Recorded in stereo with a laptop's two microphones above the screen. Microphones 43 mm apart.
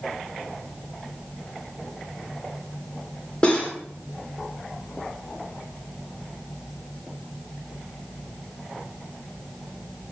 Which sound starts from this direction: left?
Cutlery clinking, at 3.4 s.